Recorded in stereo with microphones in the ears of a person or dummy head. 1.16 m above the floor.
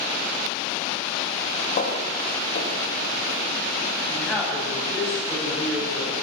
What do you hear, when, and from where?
1.8 s footsteps: 50° left (ahead or behind), 5.5 m; by 3.4 s 55° left (ahead or behind), 7 m
4.1 s a man speaking: 10° left (ahead or behind), 8 m